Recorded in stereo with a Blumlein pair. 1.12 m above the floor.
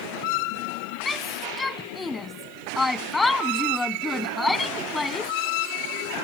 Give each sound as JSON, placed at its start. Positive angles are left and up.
{"t": 1.1, "sound": "a shout", "azimuth_deg": 10}